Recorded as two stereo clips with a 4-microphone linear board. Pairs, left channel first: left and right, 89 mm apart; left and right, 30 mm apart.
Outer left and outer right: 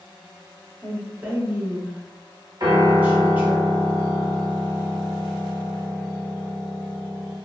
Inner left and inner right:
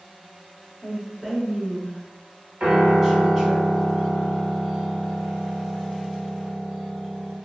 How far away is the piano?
About 1.1 m.